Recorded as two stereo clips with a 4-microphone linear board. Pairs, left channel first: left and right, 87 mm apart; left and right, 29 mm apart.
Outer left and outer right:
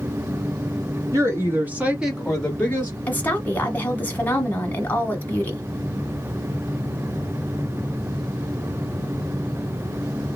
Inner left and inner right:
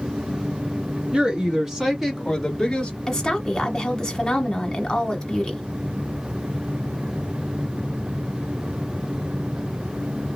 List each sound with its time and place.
1.1 s a woman speaking: 35° right (ahead or behind), 1.3 m; by 3.0 s 30° left (ahead or behind), 1.1 m
3.1 s a woman speaking: 20° left (ahead or behind), 1.2 m